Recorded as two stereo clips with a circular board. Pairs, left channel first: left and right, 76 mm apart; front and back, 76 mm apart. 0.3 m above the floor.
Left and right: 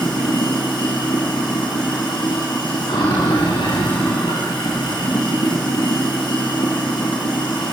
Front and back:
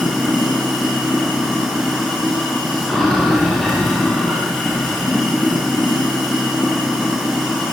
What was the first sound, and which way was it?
Running water, 85° left.